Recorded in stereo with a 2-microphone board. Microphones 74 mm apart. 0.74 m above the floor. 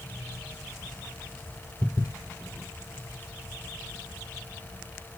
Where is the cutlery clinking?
No cutlery clinking in this recording.